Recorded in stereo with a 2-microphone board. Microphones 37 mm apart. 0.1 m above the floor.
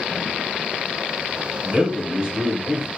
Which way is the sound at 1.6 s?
20° right (ahead or behind).